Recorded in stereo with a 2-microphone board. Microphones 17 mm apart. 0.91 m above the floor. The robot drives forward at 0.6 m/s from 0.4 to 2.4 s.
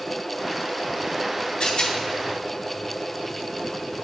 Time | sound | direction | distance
1.6 | a rattle | 60° left (ahead or behind) | 2 m